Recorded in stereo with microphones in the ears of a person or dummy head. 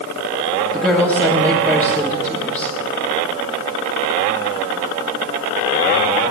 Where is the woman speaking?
15° right (ahead or behind), 1.4 m.